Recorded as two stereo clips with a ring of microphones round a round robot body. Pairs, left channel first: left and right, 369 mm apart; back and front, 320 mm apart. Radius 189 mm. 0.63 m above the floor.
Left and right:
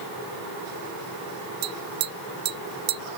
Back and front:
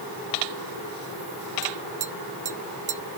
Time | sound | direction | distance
1.6 | tapping | 70° right | ?